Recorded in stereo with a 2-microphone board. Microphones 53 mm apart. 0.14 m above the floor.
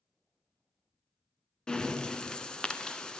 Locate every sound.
1.7 s breathing: 15° left (ahead or behind), 0.8 m